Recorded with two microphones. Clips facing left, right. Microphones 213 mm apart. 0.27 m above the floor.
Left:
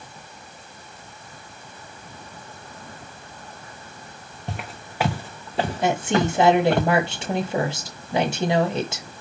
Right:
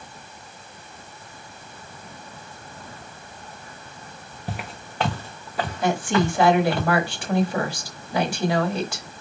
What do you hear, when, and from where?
4.5 s footsteps: 5° right (ahead or behind), 1.1 m; by 6.8 s 50° left (ahead or behind), 1.4 m
5.8 s a woman speaking: 20° left (ahead or behind), 1.0 m